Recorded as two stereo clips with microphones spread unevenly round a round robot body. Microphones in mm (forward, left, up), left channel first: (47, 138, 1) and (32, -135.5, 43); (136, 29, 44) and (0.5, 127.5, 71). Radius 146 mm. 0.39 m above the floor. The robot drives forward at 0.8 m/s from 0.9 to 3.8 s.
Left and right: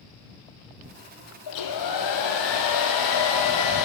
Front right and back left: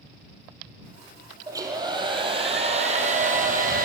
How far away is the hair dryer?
About 3 m.